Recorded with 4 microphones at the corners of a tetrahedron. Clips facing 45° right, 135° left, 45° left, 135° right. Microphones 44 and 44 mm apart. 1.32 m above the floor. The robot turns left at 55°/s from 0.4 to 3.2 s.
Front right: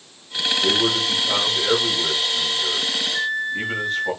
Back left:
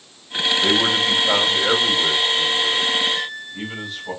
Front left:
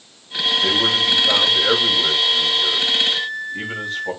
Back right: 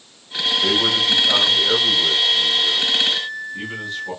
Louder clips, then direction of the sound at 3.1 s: Front right 5 dB, front left 2 dB; 25° right.